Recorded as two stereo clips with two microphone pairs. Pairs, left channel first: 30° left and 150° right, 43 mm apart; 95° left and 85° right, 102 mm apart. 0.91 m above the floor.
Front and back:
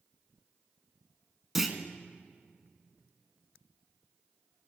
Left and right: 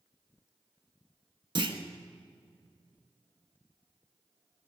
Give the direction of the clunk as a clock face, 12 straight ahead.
2 o'clock.